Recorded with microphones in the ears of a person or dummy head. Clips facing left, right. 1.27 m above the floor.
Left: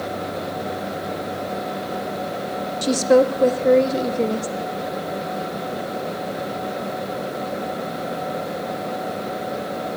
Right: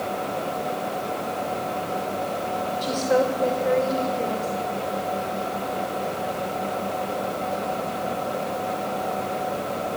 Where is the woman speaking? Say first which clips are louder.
Left 7 dB; 65° left (ahead or behind), 0.8 m.